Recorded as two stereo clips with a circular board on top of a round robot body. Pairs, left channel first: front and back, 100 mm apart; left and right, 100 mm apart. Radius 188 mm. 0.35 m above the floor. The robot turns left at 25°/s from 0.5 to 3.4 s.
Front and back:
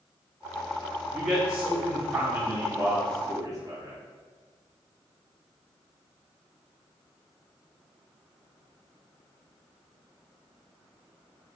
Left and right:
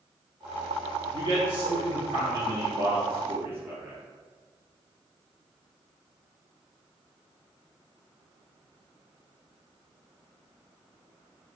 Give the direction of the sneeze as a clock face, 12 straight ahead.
I don't hear a sneeze.